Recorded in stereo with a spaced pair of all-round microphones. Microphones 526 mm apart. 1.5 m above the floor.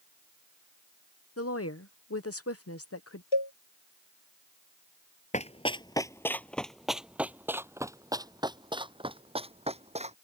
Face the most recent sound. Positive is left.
turn(degrees=-10)  # may be behind; listen again after turning